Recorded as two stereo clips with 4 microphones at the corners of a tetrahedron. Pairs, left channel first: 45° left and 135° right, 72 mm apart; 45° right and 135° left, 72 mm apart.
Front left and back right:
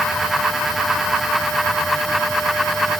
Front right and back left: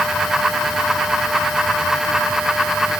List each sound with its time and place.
Only background noise.